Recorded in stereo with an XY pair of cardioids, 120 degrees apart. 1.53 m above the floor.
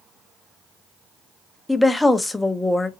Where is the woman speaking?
5° left, 0.7 m.